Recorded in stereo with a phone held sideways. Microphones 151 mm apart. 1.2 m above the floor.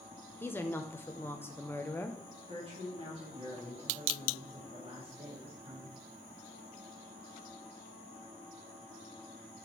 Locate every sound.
0.4 s a woman speaking: 15° left (ahead or behind), 0.7 m
2.5 s a woman speaking: 40° right (ahead or behind), 2.5 m